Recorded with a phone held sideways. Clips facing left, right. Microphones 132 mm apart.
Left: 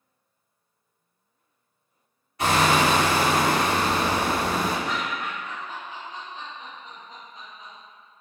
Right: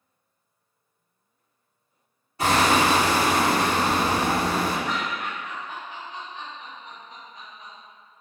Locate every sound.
2.4 s hammering: 30° right (ahead or behind), 1.5 m
4.8 s laughter: 20° left (ahead or behind), 0.7 m